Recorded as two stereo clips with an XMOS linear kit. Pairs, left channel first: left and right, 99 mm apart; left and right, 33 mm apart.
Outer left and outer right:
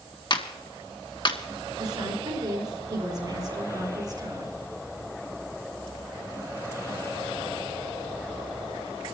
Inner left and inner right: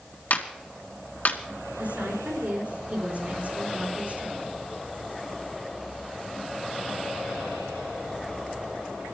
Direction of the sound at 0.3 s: 50° left (ahead or behind).